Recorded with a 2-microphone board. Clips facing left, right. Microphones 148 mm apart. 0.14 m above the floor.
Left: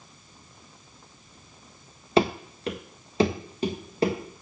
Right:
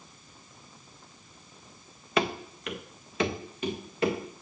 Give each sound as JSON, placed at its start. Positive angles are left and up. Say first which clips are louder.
{"t": 2.2, "sound": "running footsteps", "louder": "left 6 dB", "side_deg": 30, "distance_m": 0.8}